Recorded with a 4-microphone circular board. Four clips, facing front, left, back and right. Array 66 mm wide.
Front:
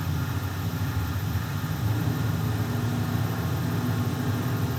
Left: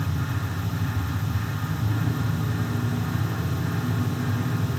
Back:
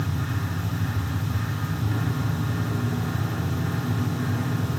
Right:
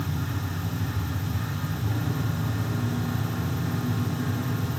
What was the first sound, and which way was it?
Only background noise.